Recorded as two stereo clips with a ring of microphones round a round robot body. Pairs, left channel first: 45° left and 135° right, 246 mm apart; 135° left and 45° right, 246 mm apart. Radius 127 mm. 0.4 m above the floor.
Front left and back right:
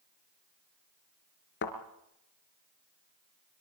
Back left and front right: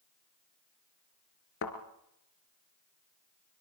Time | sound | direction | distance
1.6 | a thud | 90° left | 3 m